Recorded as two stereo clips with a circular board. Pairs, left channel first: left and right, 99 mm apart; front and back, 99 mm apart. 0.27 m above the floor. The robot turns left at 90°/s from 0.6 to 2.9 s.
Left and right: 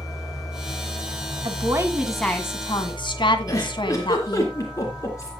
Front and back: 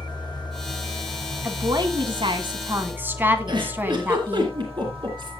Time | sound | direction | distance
0.0 | an engine running | 35° left | 8 m
1.4 | a woman speaking | 115° right | 1.8 m
3.5 | a giggle | 145° left | 3.5 m